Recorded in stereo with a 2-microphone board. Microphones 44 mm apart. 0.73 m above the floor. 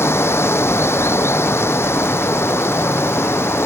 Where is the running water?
85° left.